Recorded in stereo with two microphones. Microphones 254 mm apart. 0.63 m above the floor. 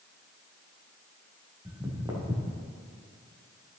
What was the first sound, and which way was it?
Footsteps, 15° right (ahead or behind).